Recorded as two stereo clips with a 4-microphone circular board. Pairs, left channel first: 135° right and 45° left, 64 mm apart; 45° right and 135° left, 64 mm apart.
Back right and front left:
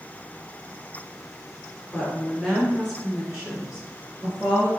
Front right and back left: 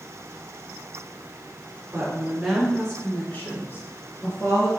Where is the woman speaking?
140° left, 1.5 m; by 4.7 s 40° right, 2 m.